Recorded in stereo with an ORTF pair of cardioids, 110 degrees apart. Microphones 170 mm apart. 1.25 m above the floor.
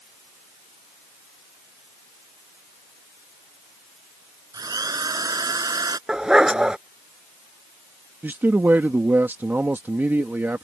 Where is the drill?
20° right.